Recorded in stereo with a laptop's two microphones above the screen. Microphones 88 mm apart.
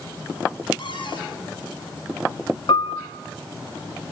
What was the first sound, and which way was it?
A cupboard door, 65° left (ahead or behind).